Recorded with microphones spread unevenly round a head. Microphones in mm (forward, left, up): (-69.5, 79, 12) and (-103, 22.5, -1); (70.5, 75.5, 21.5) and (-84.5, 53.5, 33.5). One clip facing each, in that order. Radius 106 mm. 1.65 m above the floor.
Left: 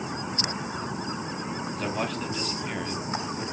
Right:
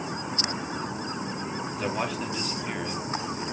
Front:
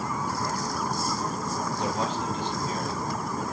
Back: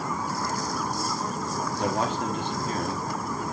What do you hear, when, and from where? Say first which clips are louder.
1.7 s a man speaking: right 1 dB, back 4 dB; 155° left, 3.5 m; by 3.4 s 150° left, 4.5 m